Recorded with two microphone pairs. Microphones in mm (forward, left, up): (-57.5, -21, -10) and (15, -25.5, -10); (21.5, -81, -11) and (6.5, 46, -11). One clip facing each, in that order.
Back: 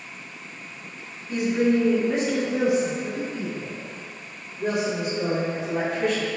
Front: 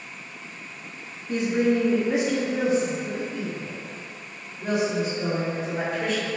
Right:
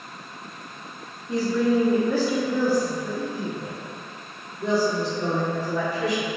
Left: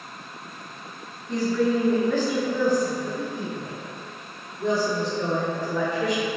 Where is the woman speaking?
10° right, 0.8 m; by 6.3 s 170° right, 2.5 m.